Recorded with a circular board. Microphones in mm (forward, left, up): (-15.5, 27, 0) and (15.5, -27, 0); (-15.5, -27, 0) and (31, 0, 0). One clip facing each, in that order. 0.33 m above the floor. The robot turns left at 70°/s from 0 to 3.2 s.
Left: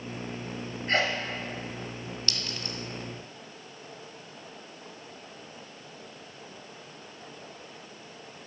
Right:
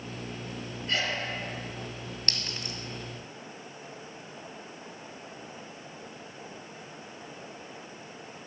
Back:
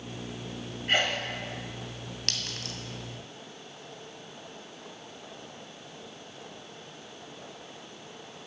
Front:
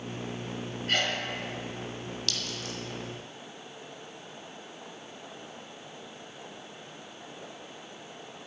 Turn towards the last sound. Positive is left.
turn(degrees=-170)